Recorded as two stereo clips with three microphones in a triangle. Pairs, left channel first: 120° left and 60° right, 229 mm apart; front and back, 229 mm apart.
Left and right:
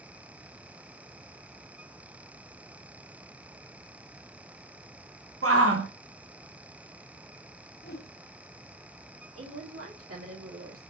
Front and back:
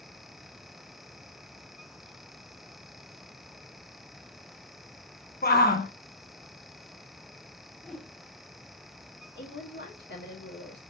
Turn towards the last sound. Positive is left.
turn(degrees=-40)